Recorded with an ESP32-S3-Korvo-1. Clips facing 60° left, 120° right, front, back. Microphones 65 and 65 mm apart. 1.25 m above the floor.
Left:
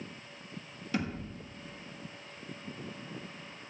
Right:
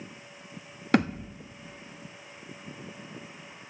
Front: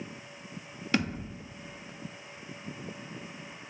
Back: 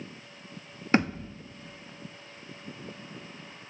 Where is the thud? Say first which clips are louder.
Right 10 dB, back 5 dB; 125° right, 1.0 m.